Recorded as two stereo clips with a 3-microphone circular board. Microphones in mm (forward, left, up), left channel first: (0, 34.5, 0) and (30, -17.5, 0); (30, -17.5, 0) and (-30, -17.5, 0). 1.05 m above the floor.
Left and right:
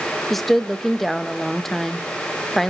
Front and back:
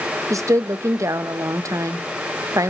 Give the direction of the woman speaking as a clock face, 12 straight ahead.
5 o'clock.